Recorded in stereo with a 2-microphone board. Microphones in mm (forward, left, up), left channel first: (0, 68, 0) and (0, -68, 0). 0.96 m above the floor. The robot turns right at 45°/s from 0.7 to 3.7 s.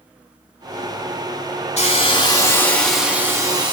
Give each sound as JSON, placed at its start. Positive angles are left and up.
{"t": 1.8, "sound": "a hiss", "azimuth_deg": 125, "distance_m": 1.2}